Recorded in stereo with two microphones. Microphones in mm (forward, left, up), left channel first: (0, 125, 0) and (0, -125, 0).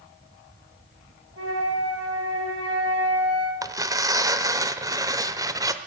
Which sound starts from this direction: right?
A flute, at 1.4 s.